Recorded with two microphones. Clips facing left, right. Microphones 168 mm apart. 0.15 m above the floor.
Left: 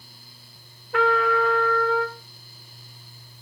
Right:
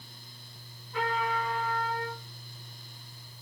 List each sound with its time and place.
0.9 s a trumpet: 80° left, 3.5 m